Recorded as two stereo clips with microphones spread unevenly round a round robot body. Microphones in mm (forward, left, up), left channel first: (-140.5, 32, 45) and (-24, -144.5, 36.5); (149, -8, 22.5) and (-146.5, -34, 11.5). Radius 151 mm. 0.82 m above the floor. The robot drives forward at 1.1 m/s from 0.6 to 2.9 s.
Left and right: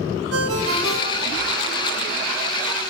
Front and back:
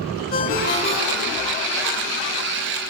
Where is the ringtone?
60° right, 2.5 m; by 1.5 s 85° right, 1.9 m.